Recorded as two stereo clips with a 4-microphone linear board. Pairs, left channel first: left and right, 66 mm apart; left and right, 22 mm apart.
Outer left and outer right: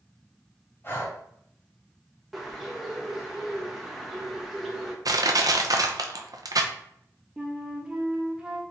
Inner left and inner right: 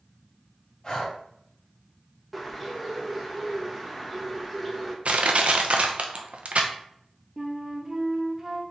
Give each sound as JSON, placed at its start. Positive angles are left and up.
{"t": 0.8, "sound": "breathing", "side_deg": 35, "distance_m": 1.6}
{"t": 2.3, "sound": "a bird", "side_deg": -5, "distance_m": 1.0}
{"t": 5.0, "sound": "crushing", "side_deg": -65, "distance_m": 0.6}
{"t": 7.4, "sound": "a flute", "side_deg": -10, "distance_m": 0.8}